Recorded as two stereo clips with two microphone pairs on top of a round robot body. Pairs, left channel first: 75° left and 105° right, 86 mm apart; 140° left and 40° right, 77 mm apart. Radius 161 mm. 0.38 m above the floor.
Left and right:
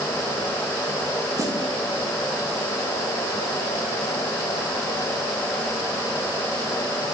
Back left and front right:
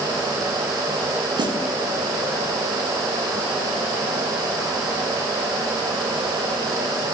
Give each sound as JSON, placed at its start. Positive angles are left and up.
{"t": 1.4, "sound": "a snare drum", "azimuth_deg": -50, "distance_m": 8.0}